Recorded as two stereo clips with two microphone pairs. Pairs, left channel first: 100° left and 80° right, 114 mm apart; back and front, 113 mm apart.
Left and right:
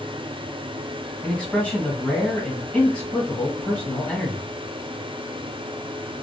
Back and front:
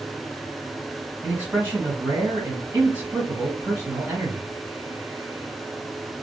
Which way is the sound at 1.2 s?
40° left.